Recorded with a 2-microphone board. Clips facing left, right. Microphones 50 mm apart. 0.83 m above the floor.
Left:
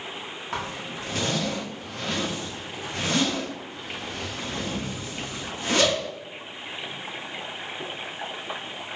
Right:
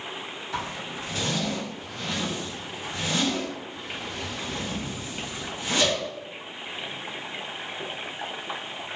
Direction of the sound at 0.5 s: 55° left (ahead or behind).